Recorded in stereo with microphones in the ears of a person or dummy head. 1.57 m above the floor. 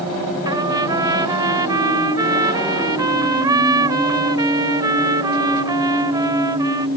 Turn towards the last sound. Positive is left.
turn(degrees=-25)  # may be behind; listen again after turning